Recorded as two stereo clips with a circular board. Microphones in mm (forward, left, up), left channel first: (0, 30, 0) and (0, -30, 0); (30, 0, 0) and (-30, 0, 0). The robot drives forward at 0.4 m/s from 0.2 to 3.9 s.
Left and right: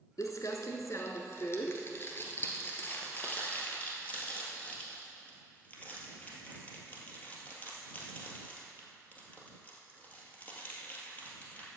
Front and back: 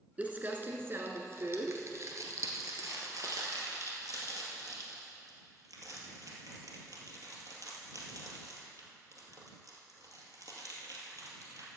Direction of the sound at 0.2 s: 110° left.